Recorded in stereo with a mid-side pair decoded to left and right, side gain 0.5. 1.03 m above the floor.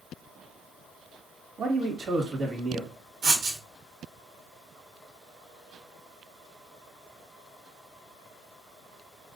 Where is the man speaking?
45° right, 1.4 m.